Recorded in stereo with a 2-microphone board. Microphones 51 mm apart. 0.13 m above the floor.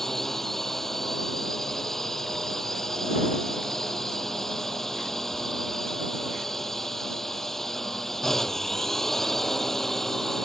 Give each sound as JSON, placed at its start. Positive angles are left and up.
{"t": 0.0, "sound": "a drone", "side_deg": 5}